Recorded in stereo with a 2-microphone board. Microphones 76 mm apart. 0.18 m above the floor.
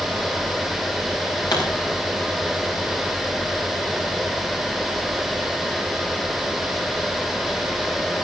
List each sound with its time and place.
1.5 s a pop: 60° left (ahead or behind), 5 m